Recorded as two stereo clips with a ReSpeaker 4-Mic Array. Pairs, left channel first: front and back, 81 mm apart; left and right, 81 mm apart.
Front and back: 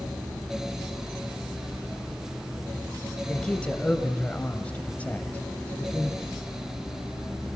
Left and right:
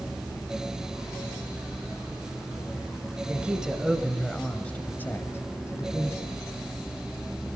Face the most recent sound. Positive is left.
turn(degrees=70)